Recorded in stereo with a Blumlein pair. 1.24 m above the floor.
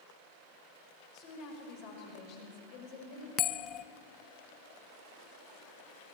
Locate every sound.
1.1 s a woman speaking: 45° left, 5.5 m
3.4 s a bell: 30° left, 0.5 m